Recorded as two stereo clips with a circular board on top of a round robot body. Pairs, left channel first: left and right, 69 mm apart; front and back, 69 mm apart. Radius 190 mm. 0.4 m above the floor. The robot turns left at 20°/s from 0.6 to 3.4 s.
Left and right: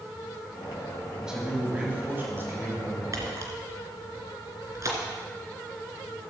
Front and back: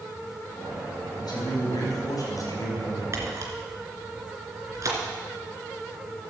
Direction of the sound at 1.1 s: 5° right.